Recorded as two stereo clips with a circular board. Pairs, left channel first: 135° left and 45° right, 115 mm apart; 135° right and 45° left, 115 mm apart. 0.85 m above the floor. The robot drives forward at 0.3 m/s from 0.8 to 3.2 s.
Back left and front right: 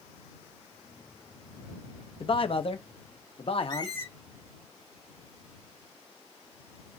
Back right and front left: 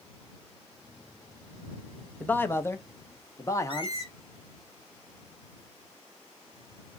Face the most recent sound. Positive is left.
turn(degrees=-170)